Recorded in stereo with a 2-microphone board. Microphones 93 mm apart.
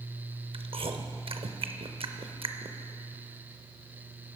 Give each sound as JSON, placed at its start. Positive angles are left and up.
{"t": 0.5, "sound": "chewing", "side_deg": -70, "distance_m": 0.6}